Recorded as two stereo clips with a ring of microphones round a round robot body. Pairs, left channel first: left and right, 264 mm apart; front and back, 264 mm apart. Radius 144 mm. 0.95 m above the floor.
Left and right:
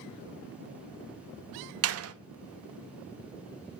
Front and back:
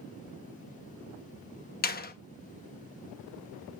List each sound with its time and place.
1.8 s a door slam: 55° right, 1.0 m